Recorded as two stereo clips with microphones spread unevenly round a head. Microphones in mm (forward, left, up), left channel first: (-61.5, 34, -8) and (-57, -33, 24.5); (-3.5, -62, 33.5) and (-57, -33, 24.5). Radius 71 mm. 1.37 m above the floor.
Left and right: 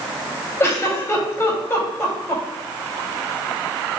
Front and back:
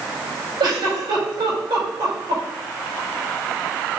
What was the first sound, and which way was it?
A giggle, 145° left.